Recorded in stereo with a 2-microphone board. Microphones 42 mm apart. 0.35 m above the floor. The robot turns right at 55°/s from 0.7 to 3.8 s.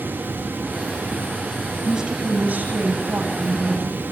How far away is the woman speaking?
About 9 m.